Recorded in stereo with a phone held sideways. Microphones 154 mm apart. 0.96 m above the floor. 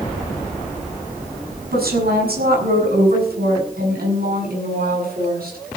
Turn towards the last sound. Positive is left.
turn(degrees=-75)  # may be behind; listen again after turning